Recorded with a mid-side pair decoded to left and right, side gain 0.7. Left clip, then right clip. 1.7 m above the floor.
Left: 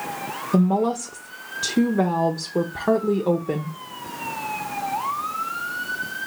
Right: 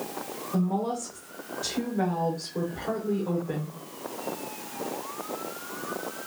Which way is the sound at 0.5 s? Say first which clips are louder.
Left 8 dB; 45° left.